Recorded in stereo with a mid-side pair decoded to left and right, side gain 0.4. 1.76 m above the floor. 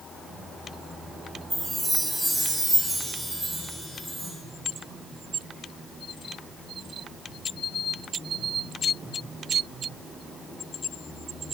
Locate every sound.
1.5 s a chime: 10° right, 2 m